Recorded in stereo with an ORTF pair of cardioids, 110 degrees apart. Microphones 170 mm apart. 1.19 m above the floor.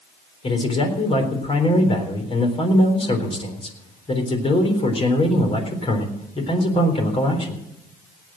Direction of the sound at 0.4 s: 35° left.